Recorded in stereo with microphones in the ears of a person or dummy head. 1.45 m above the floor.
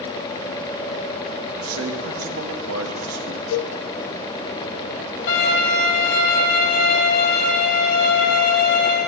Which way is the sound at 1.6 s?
85° right.